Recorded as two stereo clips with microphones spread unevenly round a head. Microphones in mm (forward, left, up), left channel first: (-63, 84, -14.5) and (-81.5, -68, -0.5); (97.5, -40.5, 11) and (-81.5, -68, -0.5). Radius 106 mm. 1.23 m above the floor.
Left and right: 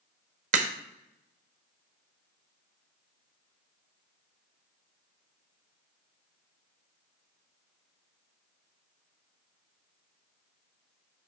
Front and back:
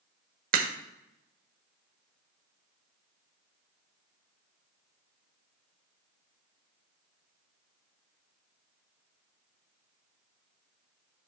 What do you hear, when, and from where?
0.5 s a crack: 130° right, 1.1 m